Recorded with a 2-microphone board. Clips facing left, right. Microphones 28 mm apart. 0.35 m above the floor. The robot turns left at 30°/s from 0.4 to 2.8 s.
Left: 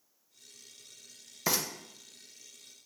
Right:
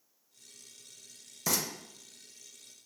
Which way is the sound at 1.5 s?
25° left (ahead or behind).